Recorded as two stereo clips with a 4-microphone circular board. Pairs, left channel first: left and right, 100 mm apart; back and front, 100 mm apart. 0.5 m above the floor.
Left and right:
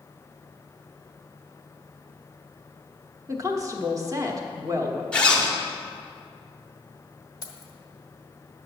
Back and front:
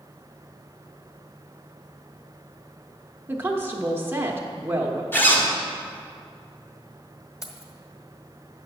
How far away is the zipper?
About 1.3 m.